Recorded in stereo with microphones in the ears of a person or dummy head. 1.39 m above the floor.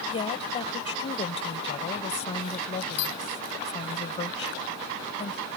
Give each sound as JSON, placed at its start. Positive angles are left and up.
{"t": 0.1, "sound": "a woman speaking", "side_deg": 30}